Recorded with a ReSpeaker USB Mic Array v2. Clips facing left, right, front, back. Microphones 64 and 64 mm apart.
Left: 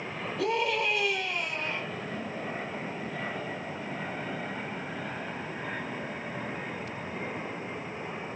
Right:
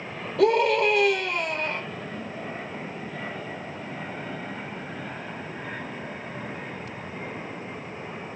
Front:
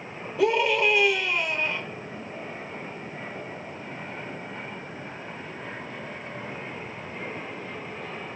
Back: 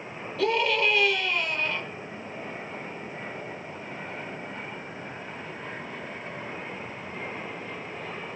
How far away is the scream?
About 5 m.